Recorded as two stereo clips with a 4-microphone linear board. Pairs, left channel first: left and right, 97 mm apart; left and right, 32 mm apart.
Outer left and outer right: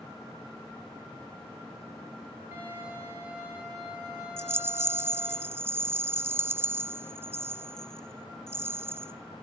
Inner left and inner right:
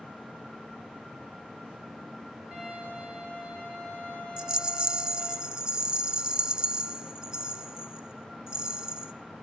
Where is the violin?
20° right (ahead or behind), 10 m.